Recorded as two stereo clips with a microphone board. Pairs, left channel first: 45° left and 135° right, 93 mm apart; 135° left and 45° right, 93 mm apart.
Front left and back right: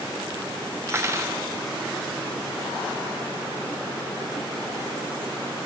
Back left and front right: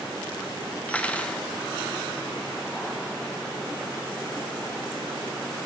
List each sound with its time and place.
0.9 s cutlery clinking: 160° right, 0.6 m